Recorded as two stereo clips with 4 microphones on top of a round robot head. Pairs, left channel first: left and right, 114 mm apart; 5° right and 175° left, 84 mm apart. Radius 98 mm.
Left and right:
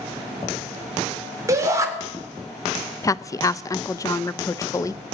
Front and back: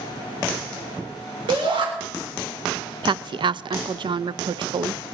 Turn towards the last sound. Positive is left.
turn(degrees=155)